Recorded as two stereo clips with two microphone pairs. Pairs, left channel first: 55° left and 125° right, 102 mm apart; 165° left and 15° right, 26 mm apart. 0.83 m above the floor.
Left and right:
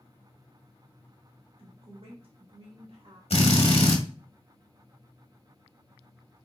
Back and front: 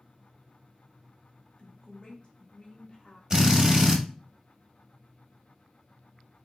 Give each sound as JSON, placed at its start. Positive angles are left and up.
{"t": 1.6, "sound": "a woman speaking", "azimuth_deg": -145, "distance_m": 1.7}
{"t": 3.3, "sound": "a drill", "azimuth_deg": 50, "distance_m": 1.1}